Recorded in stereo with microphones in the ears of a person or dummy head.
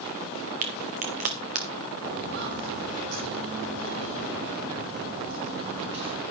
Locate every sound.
0.6 s a crack: 40° right (ahead or behind), 1.2 m
2.0 s footsteps: 50° right (ahead or behind), 3 m; by 6.2 s 55° right (ahead or behind), 3 m